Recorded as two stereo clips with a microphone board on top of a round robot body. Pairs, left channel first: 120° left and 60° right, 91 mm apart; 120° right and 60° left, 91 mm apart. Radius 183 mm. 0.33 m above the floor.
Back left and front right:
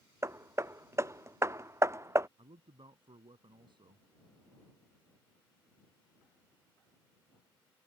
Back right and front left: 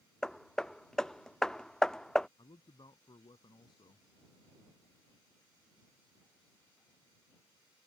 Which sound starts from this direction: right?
A man speaking, at 2.4 s.